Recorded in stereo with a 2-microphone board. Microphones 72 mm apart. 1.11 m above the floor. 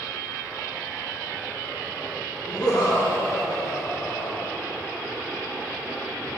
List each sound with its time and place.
2.5 s laughter: 75° left (ahead or behind), 2.0 m; by 4.5 s 10° left (ahead or behind), 1.2 m